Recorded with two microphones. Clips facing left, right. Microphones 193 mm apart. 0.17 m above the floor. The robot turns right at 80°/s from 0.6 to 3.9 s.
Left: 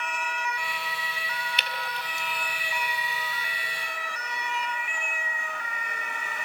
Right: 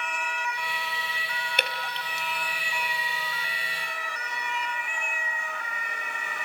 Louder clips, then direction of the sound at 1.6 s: Right 2 dB; 50° right (ahead or behind).